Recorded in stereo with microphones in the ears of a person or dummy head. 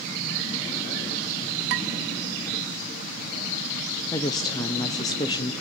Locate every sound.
1.7 s dishes clattering: 65° right (ahead or behind), 1.2 m
4.1 s a woman speaking: 20° left (ahead or behind), 0.6 m